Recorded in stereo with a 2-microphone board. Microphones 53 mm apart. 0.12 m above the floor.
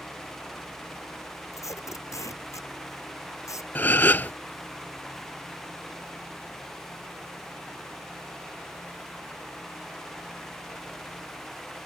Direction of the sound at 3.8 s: 35° left (ahead or behind).